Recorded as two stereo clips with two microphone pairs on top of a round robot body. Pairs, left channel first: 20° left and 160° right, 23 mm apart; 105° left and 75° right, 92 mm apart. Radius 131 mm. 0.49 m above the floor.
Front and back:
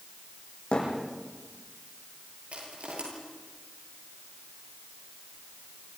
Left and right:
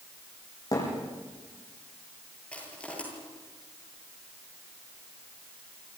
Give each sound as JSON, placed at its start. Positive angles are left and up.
{"t": 0.7, "sound": "a thud", "azimuth_deg": 55, "distance_m": 9.5}
{"t": 2.5, "sound": "crushing", "azimuth_deg": -175, "distance_m": 9.0}